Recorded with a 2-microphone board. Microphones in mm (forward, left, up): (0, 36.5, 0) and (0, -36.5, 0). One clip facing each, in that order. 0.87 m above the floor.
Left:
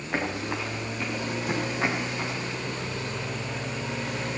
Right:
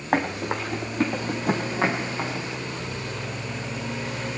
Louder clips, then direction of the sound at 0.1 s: Right 5 dB; 55° right (ahead or behind).